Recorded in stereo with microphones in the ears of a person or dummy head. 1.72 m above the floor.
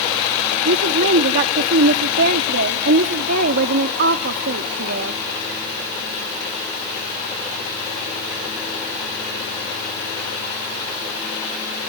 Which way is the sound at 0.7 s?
60° right (ahead or behind).